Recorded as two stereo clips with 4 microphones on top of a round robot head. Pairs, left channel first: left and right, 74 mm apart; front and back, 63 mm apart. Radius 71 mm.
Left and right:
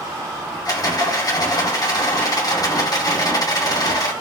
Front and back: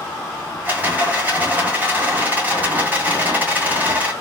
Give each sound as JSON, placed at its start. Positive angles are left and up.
{"t": 0.7, "sound": "a rattle", "azimuth_deg": 115, "distance_m": 2.0}